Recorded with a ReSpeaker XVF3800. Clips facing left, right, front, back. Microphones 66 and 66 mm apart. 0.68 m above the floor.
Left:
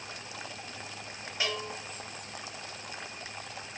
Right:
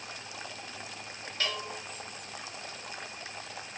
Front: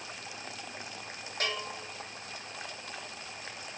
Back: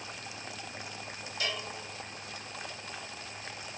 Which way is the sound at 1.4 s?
20° left.